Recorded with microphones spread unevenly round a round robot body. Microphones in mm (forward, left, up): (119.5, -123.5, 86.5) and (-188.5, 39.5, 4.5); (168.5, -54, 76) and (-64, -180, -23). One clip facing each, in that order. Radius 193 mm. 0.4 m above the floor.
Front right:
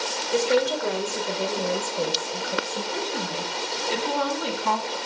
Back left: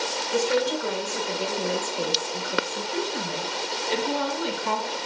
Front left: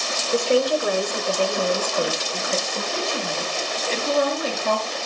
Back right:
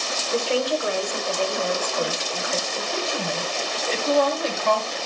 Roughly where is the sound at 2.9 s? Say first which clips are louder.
Back left 3 dB, back right 1 dB; ahead right.